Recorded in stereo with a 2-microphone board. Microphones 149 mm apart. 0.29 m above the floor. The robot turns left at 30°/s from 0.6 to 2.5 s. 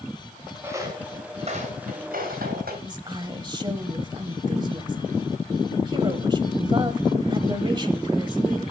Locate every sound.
0.6 s footsteps: 15° right (ahead or behind), 5 m; by 2.7 s 85° right, 4.5 m
2.8 s a woman speaking: 30° right (ahead or behind), 1.1 m